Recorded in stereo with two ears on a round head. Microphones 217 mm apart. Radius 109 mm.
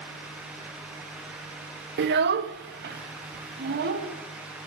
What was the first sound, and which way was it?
A child speaking, 45° right (ahead or behind).